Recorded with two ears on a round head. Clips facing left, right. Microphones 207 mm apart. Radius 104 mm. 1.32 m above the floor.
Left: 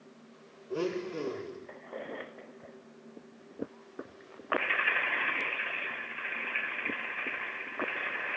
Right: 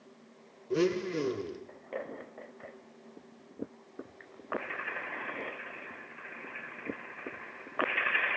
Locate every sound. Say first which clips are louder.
0.7 s a blender: right 4 dB; 30° right (ahead or behind), 0.6 m